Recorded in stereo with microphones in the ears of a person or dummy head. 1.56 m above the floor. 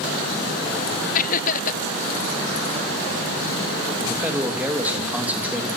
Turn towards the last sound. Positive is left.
turn(degrees=-5)  # may be behind; listen again after turning